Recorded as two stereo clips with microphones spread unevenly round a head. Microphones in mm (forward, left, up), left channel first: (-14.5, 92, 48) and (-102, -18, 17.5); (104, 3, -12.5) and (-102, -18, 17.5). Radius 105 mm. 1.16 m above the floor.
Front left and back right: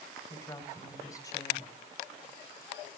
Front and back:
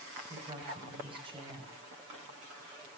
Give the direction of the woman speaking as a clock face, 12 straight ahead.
8 o'clock.